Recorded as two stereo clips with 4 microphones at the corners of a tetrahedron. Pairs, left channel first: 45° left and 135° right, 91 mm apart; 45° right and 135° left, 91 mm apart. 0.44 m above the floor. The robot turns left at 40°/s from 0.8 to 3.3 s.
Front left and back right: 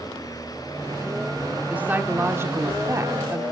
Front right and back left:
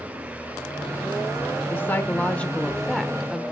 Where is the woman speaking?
80° right, 0.9 m; by 3.4 s 145° right, 0.9 m.